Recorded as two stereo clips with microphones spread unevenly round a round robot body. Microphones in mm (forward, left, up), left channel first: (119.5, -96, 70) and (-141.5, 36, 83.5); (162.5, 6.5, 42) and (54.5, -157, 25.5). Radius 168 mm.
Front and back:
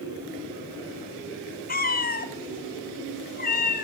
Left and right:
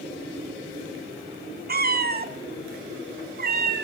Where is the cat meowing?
85° right, 1.7 m.